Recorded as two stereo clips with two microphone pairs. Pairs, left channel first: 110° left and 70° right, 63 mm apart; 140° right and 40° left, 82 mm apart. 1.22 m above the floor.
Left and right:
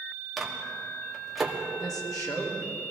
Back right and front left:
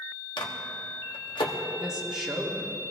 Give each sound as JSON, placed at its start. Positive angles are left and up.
{"t": 0.4, "sound": "a microwave", "azimuth_deg": -155, "distance_m": 1.5}
{"t": 1.8, "sound": "a woman speaking", "azimuth_deg": 125, "distance_m": 3.0}